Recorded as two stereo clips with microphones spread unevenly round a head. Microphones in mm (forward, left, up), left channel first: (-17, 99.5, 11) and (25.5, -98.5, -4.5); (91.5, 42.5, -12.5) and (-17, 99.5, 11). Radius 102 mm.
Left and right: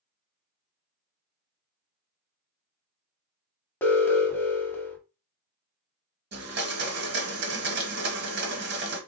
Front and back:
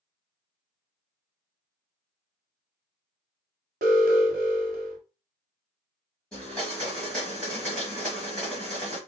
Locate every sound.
3.8 s an alarm: 175° right, 0.8 m
6.3 s a blender: 110° right, 1.4 m